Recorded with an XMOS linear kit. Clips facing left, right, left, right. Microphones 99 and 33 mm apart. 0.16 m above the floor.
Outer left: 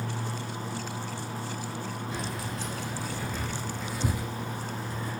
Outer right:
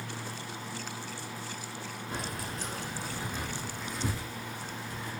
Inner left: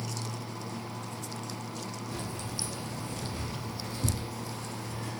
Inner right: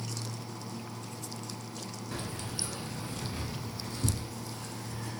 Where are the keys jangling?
50° right (ahead or behind), 1.4 m; by 5.1 s 40° left (ahead or behind), 1.3 m.